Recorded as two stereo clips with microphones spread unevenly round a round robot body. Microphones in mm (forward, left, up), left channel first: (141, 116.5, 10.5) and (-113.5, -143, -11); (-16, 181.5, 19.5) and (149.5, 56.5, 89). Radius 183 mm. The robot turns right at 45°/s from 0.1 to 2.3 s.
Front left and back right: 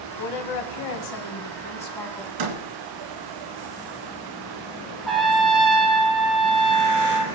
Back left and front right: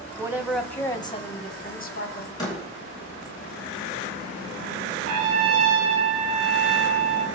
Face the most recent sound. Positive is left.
turn(degrees=-45)